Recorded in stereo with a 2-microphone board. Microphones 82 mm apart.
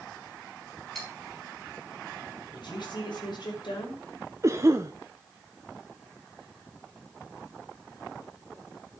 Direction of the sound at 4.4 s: 35° right (ahead or behind).